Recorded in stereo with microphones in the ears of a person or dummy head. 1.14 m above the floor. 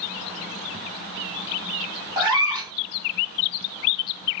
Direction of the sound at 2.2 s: 20° right (ahead or behind).